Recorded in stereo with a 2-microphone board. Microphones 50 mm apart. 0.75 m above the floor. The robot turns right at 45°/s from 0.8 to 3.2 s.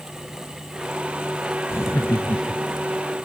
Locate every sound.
1.7 s laughter: 60° left; by 2.9 s 115° left